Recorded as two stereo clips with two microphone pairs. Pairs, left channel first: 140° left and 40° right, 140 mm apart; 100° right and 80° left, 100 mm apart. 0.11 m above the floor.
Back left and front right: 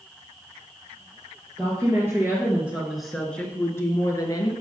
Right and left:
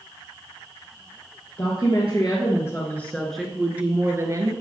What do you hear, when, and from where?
1.6 s a woman speaking: 100° right, 2 m; by 4.5 s 100° left, 1.7 m